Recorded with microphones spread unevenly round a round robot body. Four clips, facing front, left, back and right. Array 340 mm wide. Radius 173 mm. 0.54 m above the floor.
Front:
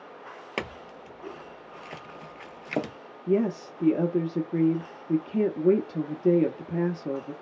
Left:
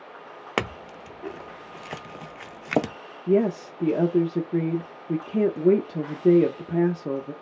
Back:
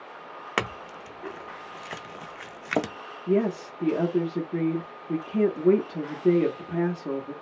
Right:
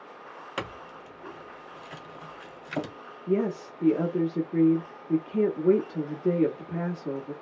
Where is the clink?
110° left, 0.5 m.